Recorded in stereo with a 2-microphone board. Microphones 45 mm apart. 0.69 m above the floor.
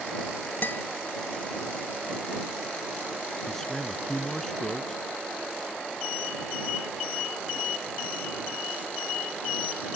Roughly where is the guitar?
Left.